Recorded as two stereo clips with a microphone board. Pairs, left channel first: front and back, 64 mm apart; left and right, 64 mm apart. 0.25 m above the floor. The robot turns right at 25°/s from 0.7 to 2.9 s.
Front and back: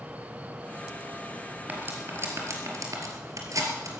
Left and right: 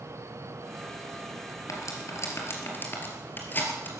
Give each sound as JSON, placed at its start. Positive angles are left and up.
{"t": 1.7, "sound": "cutlery clinking", "azimuth_deg": 120, "distance_m": 3.0}